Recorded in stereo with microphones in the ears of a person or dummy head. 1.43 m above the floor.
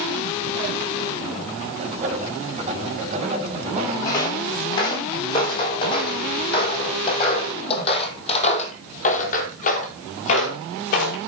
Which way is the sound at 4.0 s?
25° left (ahead or behind).